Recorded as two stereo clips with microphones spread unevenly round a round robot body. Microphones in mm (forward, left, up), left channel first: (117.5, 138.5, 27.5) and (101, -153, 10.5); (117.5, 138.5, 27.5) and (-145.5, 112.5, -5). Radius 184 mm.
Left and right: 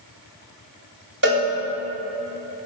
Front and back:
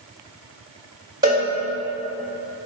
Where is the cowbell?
115° right, 1.5 m.